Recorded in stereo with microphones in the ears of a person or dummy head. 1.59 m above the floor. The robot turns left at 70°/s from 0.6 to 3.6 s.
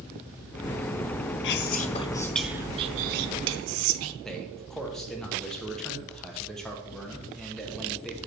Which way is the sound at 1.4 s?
65° left.